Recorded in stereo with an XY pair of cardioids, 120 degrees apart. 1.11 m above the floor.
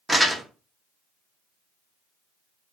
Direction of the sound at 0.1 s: 5° right.